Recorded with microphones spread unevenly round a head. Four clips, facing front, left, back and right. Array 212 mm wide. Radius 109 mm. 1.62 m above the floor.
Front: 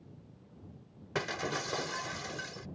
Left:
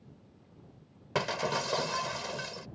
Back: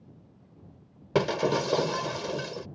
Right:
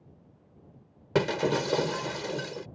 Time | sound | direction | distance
1.1 | breaking glass | 130° right | ?